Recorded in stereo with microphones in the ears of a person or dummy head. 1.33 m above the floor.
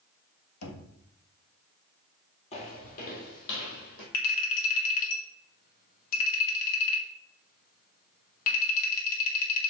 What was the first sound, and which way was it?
Knocking, 85° left.